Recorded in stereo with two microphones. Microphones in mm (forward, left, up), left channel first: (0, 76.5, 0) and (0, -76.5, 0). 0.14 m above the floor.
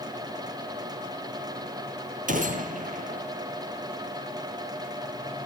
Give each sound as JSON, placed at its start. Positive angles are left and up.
{"t": 2.3, "sound": "a gunshot", "side_deg": -65, "distance_m": 0.8}